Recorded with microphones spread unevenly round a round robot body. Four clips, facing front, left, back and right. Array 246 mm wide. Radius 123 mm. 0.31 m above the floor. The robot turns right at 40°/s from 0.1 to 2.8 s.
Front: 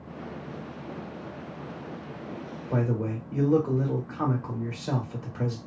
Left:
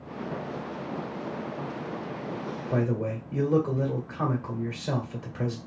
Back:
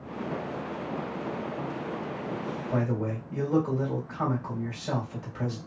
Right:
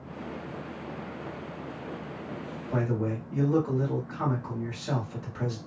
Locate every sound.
2.7 s a man speaking: 55° left, 1.7 m; by 5.6 s 60° left, 1.7 m